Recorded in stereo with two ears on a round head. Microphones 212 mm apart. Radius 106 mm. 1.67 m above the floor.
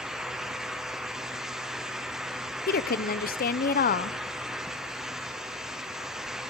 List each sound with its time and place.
2.7 s a woman speaking: 40° left (ahead or behind), 1.0 m